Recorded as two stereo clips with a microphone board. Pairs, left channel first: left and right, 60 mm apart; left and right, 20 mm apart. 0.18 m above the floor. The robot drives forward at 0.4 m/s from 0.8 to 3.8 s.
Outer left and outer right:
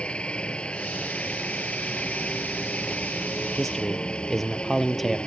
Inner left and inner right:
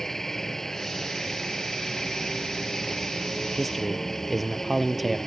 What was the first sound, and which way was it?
A helicopter, 20° left (ahead or behind).